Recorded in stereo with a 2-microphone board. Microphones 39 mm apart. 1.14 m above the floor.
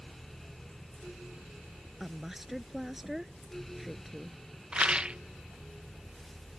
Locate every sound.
2.0 s a woman speaking: 5° right (ahead or behind)
4.7 s a rattle: 30° right (ahead or behind)